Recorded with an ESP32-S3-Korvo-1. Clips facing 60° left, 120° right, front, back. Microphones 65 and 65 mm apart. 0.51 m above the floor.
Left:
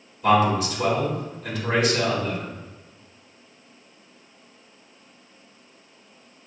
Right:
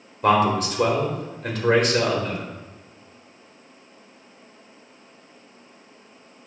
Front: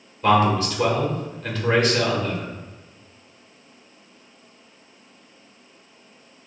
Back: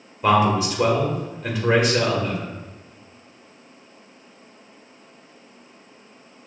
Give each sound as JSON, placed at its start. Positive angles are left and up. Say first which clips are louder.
{"t": 0.2, "sound": "a man speaking", "louder": "even, even", "azimuth_deg": -105, "distance_m": 1.5}